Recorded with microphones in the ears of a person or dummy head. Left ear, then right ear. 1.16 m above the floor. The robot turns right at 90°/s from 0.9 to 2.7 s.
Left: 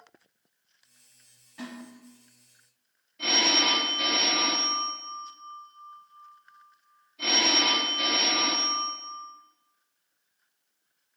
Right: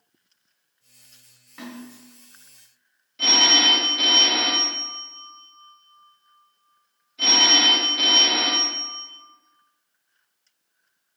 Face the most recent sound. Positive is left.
turn(degrees=-85)